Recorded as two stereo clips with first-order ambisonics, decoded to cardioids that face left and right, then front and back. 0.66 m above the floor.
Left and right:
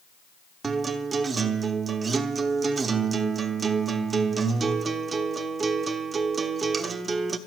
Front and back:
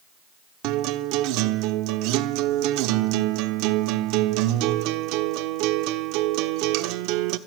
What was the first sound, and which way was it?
A guitar, 160° right.